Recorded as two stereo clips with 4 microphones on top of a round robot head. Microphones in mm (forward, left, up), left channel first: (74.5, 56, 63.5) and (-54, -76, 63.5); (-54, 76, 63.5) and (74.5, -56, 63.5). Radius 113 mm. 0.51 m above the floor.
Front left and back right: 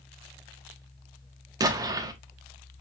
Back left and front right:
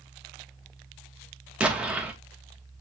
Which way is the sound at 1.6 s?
120° right.